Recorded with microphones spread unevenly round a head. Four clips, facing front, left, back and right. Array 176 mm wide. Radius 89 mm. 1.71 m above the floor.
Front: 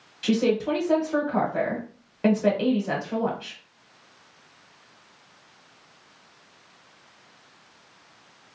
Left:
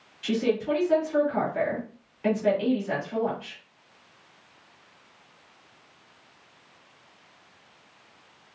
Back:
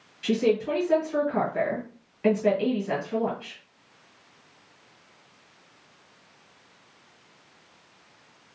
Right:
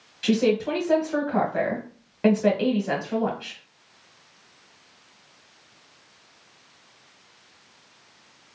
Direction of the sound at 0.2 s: 45° right.